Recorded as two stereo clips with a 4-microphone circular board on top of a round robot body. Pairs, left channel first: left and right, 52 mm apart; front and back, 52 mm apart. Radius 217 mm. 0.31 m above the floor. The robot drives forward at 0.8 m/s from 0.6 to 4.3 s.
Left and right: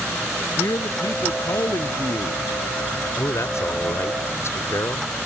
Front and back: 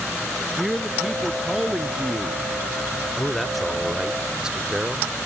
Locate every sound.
0.6 s a man speaking: 90° left; by 2.4 s 100° left
3.2 s a man speaking: 80° left; by 5.2 s 105° left